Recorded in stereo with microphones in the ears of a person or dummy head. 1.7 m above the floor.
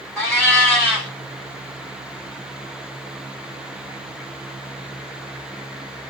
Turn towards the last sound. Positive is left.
turn(degrees=0)  # may be behind; listen again after turning